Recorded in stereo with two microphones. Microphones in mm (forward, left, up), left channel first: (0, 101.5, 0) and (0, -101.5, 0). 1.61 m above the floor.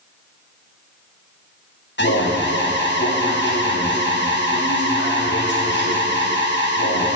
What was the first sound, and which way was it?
An alarm, 65° left (ahead or behind).